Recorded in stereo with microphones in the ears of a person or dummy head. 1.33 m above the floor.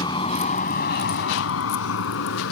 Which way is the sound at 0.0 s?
25° left (ahead or behind).